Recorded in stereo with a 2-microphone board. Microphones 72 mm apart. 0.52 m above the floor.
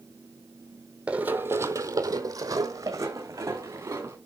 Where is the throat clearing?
No throat clearing in this recording.